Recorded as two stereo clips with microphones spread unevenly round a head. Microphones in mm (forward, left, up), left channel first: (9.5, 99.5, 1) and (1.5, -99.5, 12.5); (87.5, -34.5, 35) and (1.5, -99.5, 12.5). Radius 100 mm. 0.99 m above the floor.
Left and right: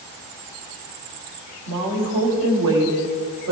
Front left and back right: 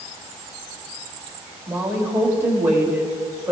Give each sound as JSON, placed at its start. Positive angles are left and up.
{"t": 1.7, "sound": "a woman speaking", "azimuth_deg": -75, "distance_m": 2.5}